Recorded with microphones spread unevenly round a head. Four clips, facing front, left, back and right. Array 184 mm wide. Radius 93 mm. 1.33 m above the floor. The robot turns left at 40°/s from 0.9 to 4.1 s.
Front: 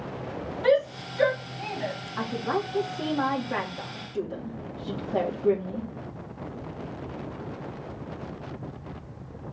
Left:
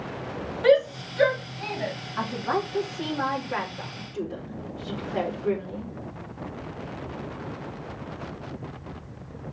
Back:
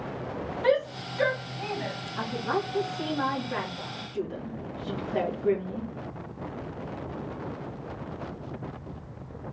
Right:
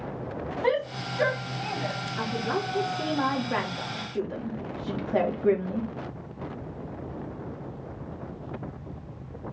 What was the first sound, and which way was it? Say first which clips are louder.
A shout: left 8 dB, front 3 dB; 85° left.